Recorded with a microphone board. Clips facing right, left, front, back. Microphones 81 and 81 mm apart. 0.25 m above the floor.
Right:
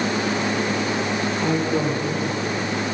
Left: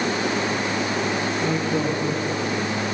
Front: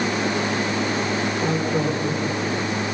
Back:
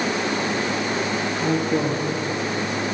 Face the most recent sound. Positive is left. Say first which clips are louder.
# right 3 dB, back 3 dB
turn(degrees=-170)